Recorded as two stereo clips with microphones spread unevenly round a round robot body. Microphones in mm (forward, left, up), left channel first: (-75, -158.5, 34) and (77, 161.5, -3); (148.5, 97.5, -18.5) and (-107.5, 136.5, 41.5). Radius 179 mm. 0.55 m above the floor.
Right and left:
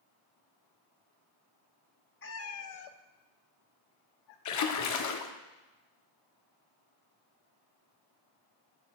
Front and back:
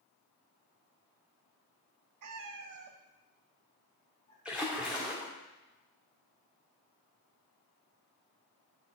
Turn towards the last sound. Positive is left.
turn(degrees=-90)